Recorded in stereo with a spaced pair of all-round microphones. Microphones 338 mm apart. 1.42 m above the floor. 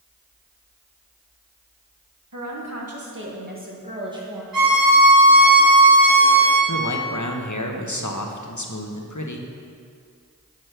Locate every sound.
2.3 s a woman speaking: 60° right (ahead or behind), 1.7 m; by 4.4 s 5° right (ahead or behind), 2.0 m
4.5 s a violin: 80° right, 3.5 m
6.7 s a man speaking: 60° left (ahead or behind), 1.1 m